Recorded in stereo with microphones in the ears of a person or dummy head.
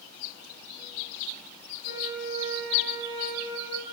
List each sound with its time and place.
1.9 s a flute: 25° right (ahead or behind), 3.5 m